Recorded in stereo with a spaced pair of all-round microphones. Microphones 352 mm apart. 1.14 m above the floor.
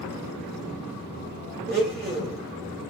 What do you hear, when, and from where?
1.7 s a blender: 25° right (ahead or behind), 2 m